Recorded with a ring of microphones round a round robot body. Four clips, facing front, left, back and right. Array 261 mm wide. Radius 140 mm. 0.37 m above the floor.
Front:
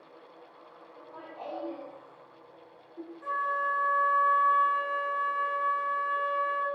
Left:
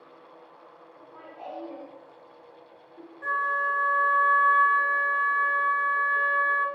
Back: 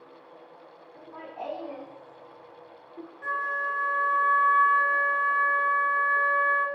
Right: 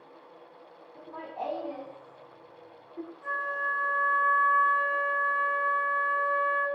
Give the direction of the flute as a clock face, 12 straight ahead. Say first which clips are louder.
Left 6 dB, even; 8 o'clock.